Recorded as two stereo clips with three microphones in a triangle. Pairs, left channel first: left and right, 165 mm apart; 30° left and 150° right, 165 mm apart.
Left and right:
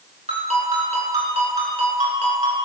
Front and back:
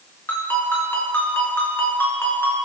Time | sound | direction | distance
0.3 | a ringtone | 45° right | 3.5 m